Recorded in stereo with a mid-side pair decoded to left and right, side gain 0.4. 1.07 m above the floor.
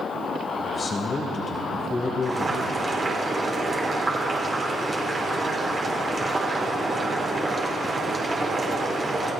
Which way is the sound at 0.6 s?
50° left.